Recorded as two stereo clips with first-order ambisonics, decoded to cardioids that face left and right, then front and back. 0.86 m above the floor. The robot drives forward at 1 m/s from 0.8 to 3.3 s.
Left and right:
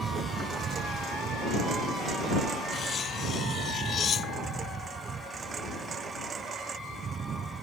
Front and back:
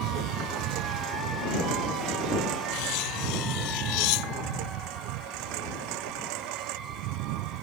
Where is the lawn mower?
155° right; by 7.6 s 160° right.